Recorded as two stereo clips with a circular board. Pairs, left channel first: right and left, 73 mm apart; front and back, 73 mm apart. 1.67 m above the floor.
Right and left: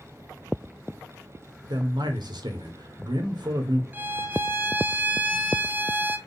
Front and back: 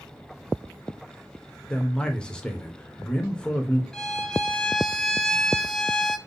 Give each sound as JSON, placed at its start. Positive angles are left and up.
{"t": 1.7, "sound": "a man speaking", "azimuth_deg": 80, "distance_m": 1.1}
{"t": 3.9, "sound": "a violin", "azimuth_deg": 70, "distance_m": 0.5}